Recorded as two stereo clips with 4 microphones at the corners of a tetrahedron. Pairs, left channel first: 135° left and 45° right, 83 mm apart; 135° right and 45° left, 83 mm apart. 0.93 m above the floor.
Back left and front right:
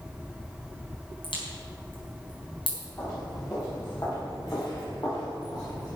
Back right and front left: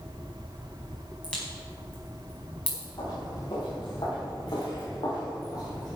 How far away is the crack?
About 5 m.